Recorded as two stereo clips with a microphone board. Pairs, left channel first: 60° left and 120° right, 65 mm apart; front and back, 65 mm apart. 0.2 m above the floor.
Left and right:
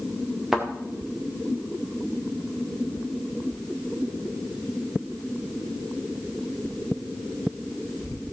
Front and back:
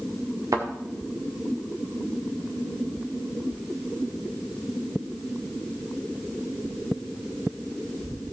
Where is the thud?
155° left, 3 m.